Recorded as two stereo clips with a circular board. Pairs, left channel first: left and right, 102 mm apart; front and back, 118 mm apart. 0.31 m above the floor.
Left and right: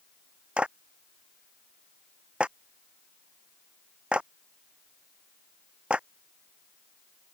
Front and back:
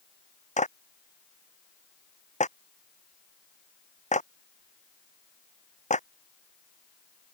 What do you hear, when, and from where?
0.6 s a clap: 10° right